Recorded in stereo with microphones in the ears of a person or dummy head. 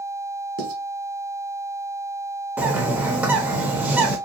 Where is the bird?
5° right (ahead or behind), 0.5 m.